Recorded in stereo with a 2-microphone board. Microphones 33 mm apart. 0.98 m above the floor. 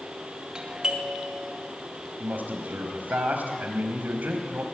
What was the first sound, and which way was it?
A doorbell, 25° right (ahead or behind).